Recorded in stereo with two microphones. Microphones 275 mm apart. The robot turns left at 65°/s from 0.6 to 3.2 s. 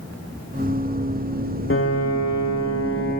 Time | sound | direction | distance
1.7 | a piano | 130° left | 2 m